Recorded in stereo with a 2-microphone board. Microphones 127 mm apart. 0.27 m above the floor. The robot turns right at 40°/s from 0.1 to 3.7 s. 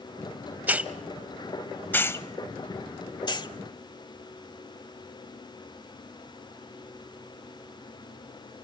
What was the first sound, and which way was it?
A hiss, 15° right (ahead or behind).